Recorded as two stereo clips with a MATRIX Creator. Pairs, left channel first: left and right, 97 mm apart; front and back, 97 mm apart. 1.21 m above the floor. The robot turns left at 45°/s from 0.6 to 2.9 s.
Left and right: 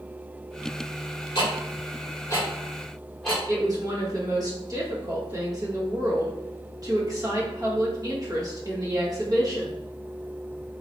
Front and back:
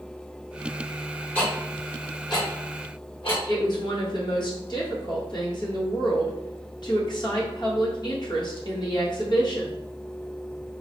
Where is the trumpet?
I don't hear a trumpet.